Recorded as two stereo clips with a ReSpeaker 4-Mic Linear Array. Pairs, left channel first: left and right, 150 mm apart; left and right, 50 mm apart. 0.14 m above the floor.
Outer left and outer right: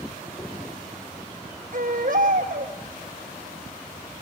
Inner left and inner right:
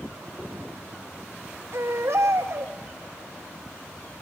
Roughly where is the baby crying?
Right.